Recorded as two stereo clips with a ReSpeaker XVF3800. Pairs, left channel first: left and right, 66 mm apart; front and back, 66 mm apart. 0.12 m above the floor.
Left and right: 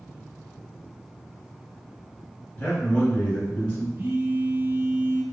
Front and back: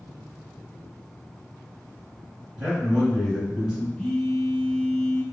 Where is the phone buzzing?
70° right, 0.7 m.